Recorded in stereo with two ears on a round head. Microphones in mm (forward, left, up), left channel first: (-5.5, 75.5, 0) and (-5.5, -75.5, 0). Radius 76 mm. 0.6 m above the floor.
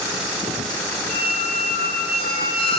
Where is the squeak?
35° left (ahead or behind), 2 m.